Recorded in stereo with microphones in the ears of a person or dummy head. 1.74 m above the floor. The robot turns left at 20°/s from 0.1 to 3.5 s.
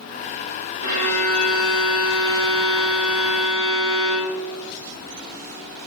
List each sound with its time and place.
0.8 s a violin: 85° right, 1.6 m; by 4.7 s 140° right, 1.6 m